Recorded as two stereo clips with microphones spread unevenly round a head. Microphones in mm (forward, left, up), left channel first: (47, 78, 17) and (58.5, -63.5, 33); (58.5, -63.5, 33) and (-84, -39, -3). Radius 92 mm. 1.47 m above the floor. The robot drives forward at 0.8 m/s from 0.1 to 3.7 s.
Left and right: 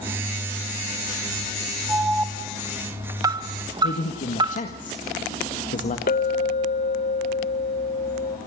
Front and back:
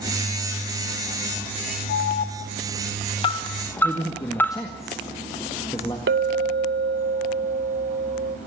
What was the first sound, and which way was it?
An alarm, 15° right.